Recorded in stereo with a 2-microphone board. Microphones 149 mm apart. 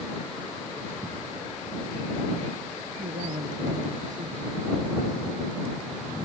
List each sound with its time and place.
3.0 s a man speaking: 70° right (ahead or behind)